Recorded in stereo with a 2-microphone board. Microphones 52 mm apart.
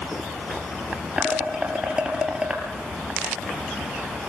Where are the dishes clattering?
15° right (ahead or behind), 3 m.